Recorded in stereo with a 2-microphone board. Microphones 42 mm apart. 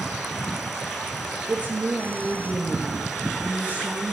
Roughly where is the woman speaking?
Right.